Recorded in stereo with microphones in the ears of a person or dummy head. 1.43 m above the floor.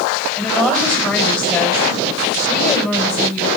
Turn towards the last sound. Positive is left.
turn(degrees=15)  # may be behind; listen again after turning